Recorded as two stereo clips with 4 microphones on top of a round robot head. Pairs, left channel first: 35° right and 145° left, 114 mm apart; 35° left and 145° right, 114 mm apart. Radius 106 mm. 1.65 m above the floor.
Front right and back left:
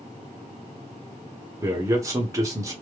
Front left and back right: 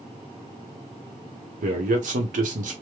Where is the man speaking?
150° right, 1.0 m.